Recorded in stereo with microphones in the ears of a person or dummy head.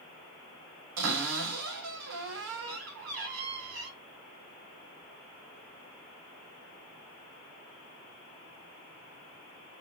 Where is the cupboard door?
75° right (ahead or behind), 1.8 m.